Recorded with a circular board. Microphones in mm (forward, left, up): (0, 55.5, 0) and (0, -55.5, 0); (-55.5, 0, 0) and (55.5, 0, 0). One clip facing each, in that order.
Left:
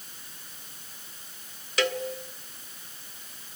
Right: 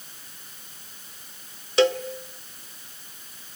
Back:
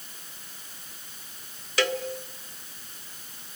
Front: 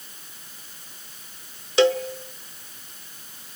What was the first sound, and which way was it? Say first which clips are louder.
A cowbell: right 8 dB, front 9 dB; 45° right.